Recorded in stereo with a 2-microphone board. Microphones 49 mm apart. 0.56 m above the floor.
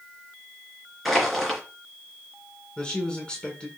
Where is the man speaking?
20° left (ahead or behind), 1.6 m.